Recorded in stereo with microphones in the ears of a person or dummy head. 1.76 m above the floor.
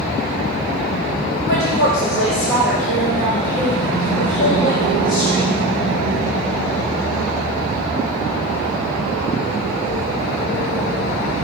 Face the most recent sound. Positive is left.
turn(degrees=65)  # may be behind; listen again after turning